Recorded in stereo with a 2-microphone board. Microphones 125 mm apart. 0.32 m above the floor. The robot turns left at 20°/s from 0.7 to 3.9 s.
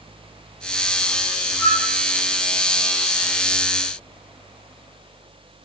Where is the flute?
20° left (ahead or behind), 1.2 m; by 1.8 s 25° left (ahead or behind), 1.2 m.